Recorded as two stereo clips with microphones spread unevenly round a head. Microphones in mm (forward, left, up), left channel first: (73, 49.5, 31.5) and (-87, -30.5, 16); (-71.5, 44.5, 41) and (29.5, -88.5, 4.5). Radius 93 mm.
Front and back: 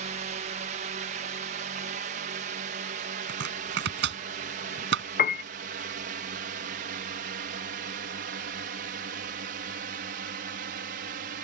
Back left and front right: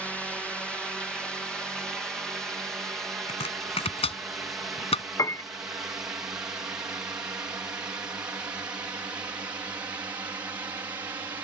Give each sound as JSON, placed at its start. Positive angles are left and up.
{"t": 0.0, "sound": "a drone", "azimuth_deg": -140}
{"t": 3.3, "sound": "chopping", "azimuth_deg": 180}
{"t": 5.2, "sound": "a piano", "azimuth_deg": 45}